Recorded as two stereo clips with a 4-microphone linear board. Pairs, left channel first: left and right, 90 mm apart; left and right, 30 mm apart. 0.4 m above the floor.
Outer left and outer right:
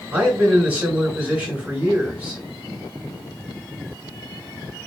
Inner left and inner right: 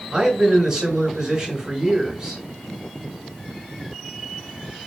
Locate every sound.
0.1 s a man speaking: 15° right (ahead or behind), 2 m